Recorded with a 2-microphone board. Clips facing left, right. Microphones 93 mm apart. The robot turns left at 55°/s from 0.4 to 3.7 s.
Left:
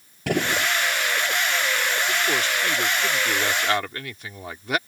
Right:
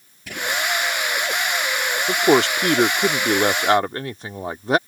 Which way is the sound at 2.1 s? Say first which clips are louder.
Right 8 dB; 55° right.